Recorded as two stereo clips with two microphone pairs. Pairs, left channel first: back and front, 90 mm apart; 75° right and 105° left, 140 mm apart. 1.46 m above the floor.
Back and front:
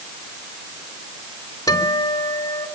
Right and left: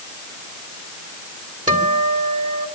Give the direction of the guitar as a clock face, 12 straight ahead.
8 o'clock.